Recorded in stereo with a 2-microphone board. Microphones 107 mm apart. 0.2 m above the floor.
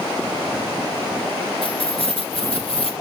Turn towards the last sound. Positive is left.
turn(degrees=60)  # may be behind; listen again after turning